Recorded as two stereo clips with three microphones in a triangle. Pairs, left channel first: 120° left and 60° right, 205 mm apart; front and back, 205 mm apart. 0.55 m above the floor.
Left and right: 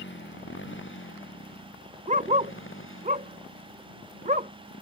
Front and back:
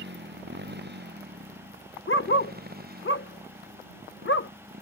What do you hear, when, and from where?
0.0 s a motorcycle: 145° left; by 4.8 s 135° left
2.1 s a dog barking: 10° right